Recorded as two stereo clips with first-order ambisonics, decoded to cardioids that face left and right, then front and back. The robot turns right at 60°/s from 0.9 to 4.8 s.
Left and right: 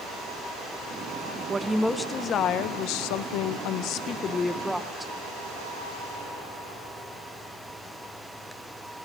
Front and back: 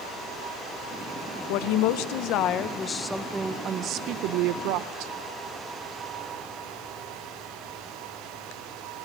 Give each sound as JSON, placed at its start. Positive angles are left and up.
{"t": 1.5, "sound": "a woman speaking", "azimuth_deg": -15, "distance_m": 1.2}